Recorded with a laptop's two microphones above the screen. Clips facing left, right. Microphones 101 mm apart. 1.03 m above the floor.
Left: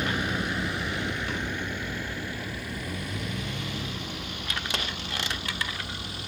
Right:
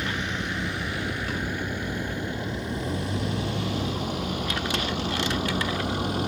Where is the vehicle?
15° left (ahead or behind); by 6.3 s 45° right (ahead or behind).